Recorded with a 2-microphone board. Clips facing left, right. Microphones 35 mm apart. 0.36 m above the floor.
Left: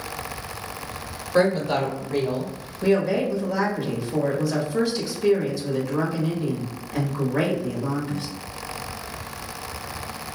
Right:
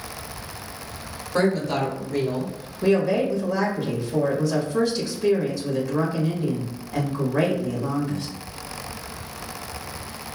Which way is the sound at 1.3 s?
10° left (ahead or behind).